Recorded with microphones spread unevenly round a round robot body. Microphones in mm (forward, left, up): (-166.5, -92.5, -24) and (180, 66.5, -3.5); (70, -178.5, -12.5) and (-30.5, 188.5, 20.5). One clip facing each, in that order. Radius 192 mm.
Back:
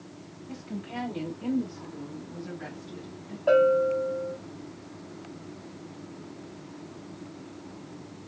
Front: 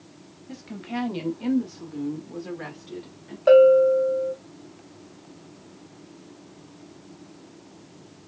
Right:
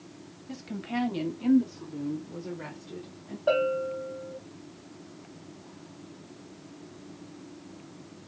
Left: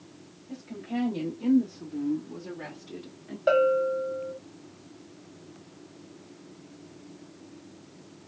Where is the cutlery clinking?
I don't hear cutlery clinking.